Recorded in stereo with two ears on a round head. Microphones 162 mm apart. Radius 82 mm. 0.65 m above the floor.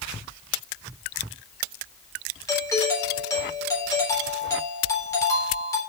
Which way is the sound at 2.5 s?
20° left (ahead or behind).